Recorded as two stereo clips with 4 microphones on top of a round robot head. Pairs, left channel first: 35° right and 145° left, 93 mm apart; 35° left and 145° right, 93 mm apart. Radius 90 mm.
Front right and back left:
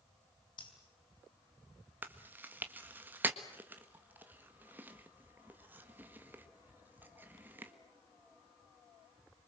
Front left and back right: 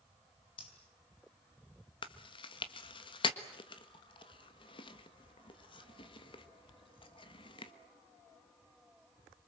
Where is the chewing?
70° left, 1.5 m.